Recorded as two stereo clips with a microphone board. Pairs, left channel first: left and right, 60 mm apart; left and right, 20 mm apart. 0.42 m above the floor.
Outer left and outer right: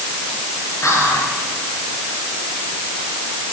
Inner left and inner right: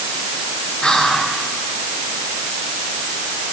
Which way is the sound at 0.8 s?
65° left (ahead or behind).